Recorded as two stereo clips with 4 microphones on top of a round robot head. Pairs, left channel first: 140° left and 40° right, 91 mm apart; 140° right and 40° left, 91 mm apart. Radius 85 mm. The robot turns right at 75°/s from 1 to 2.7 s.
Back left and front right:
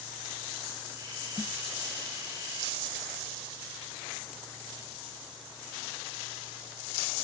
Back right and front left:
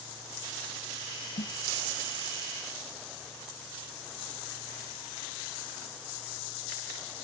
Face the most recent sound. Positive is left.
turn(degrees=-30)